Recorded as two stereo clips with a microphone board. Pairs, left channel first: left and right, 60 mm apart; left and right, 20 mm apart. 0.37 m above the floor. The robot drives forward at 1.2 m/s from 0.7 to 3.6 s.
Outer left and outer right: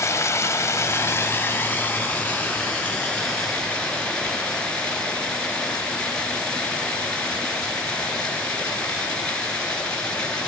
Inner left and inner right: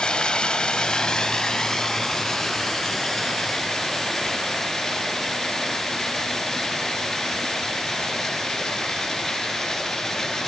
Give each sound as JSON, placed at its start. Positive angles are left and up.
{"t": 0.0, "sound": "running water", "side_deg": 55, "distance_m": 1.4}